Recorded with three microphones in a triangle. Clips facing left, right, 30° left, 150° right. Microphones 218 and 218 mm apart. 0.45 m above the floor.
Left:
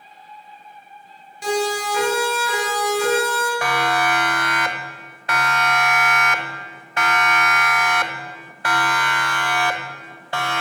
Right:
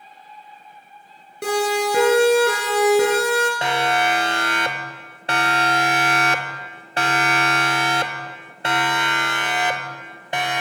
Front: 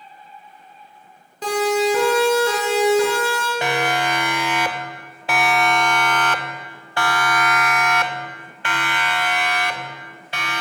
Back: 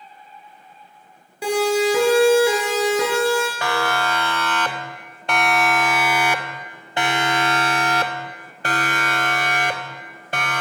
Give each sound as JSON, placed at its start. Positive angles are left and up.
{"t": 1.4, "sound": "a siren", "azimuth_deg": -70, "distance_m": 9.5}
{"t": 3.6, "sound": "a siren", "azimuth_deg": -35, "distance_m": 3.0}